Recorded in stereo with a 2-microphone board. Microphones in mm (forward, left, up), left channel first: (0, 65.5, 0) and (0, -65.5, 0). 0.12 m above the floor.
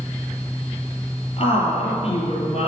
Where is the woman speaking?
45° left (ahead or behind), 2.5 m.